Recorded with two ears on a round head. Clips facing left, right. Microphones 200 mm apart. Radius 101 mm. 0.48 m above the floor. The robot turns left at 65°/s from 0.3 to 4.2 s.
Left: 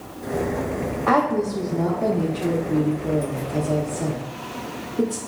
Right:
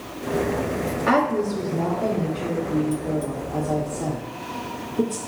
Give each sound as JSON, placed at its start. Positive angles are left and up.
{"t": 1.1, "sound": "a woman speaking", "side_deg": -15, "distance_m": 0.7}